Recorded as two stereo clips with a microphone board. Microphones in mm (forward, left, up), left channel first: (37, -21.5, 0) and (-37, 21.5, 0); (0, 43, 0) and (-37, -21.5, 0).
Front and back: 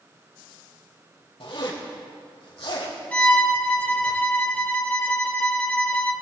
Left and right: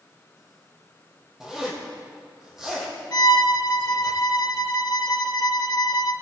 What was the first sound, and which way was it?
A zipper, 35° right.